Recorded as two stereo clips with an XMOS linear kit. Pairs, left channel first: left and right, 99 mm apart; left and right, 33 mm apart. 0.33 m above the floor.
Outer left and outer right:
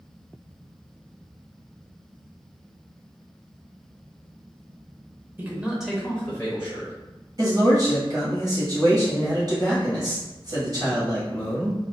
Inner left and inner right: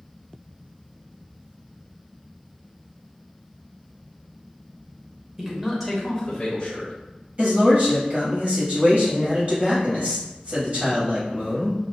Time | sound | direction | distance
5.4 | a man speaking | 20° right (ahead or behind) | 0.8 m
7.4 | a man speaking | 40° right (ahead or behind) | 1.7 m